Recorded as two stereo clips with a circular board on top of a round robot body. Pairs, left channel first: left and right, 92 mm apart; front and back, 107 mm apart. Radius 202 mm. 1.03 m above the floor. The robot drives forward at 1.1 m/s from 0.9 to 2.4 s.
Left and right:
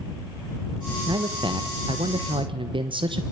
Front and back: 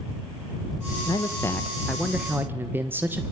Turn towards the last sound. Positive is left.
turn(degrees=-110)